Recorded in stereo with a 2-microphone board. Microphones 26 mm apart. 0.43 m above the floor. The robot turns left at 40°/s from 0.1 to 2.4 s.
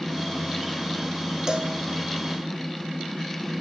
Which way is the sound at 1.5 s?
25° right (ahead or behind).